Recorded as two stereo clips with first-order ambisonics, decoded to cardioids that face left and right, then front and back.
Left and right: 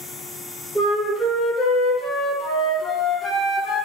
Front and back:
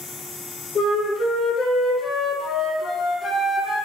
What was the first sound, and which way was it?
A flute, 25° left.